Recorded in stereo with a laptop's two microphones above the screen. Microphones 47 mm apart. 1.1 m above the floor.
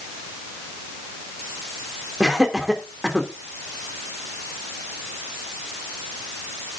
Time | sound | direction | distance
2.2 | laughter | 10° right (ahead or behind) | 2.5 m